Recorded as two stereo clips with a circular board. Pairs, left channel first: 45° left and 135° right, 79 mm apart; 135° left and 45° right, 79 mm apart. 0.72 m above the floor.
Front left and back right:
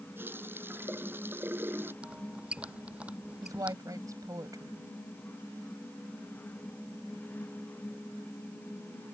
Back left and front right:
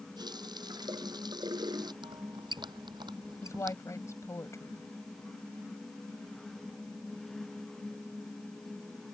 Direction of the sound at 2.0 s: 60° right.